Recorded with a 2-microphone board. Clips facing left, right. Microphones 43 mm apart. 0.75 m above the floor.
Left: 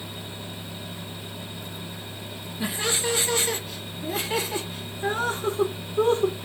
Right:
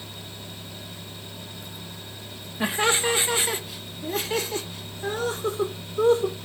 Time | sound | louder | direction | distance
2.6 | laughter | right 5 dB | 45° right (ahead or behind) | 0.9 m